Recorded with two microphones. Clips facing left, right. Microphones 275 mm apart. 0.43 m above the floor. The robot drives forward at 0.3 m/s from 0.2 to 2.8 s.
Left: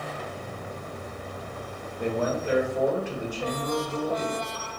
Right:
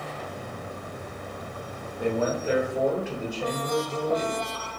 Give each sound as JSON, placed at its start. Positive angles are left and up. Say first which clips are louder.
{"t": 2.0, "sound": "a man speaking", "louder": "right 1 dB", "side_deg": -10, "distance_m": 1.4}